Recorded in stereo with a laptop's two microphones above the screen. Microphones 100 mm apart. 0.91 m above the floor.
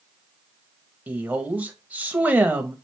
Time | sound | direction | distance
1.1 | a woman speaking | 15° right (ahead or behind) | 0.9 m